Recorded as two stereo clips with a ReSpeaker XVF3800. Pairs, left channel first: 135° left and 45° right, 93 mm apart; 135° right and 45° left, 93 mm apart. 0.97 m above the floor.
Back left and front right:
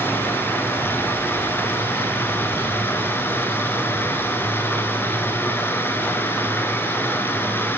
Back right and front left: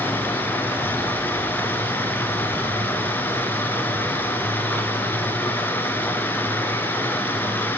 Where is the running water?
Straight behind, 1.0 m.